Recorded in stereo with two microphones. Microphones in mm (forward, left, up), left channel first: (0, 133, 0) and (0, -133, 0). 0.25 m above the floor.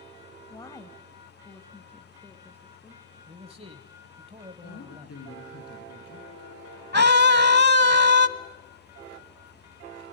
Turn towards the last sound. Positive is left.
turn(degrees=-40)  # may be behind; listen again after turning